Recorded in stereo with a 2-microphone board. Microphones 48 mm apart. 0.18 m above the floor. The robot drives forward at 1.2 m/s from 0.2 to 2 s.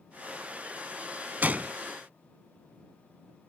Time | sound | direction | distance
1.4 | a gunshot | 35° right (ahead or behind) | ?